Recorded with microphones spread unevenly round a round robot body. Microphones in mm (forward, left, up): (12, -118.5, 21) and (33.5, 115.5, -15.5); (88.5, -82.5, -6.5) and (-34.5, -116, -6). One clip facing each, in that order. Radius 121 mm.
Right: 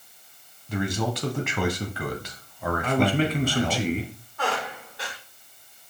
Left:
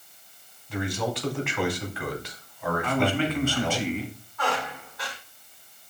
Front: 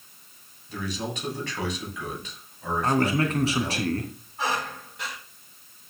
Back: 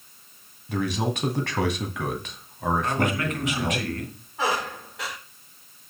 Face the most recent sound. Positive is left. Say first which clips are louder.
# even, back 3 dB
turn(degrees=-160)